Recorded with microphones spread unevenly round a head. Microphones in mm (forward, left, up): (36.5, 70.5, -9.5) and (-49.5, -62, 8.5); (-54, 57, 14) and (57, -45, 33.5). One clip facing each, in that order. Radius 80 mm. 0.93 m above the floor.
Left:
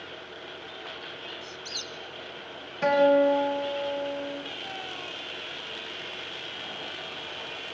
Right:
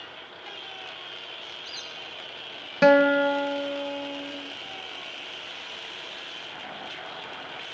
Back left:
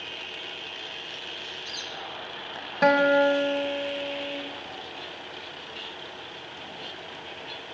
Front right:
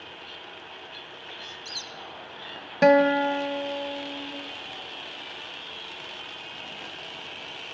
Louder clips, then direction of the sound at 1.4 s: Left 3 dB, back left 2 dB; 5° left.